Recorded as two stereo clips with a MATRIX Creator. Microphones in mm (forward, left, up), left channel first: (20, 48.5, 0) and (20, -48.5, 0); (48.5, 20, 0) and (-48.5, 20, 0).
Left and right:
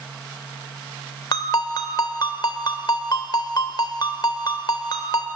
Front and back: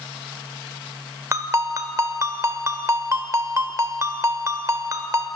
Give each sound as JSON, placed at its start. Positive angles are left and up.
{"t": 1.3, "sound": "a ringtone", "azimuth_deg": 125, "distance_m": 1.5}